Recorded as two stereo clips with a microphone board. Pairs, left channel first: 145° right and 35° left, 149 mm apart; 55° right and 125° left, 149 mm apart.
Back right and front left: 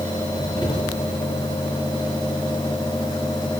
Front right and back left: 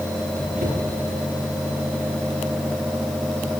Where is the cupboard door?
155° left, 5.5 m.